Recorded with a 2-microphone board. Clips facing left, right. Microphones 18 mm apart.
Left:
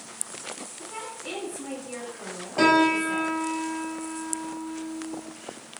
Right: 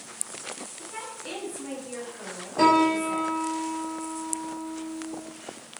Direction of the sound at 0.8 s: 5° left (ahead or behind).